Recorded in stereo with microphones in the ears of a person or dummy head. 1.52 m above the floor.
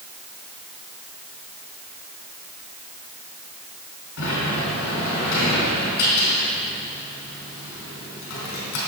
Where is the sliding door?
70° left (ahead or behind), 4 m.